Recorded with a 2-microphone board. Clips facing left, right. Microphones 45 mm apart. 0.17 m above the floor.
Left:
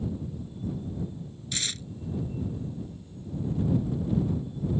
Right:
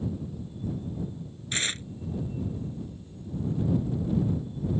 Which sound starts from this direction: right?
Tearing paper, at 1.5 s.